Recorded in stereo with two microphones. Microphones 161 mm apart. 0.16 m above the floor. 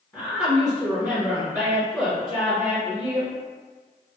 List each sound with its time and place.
0.1 s a woman speaking: 20° left (ahead or behind), 1.5 m